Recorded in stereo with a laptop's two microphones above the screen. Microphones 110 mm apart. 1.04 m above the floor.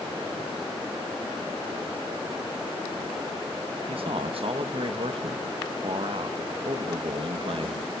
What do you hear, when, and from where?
3.9 s a man speaking: 60° right (ahead or behind), 1.5 m